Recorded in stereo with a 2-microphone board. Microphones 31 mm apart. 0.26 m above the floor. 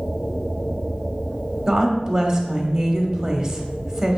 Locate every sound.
1.7 s a woman speaking: 15° right (ahead or behind), 1.2 m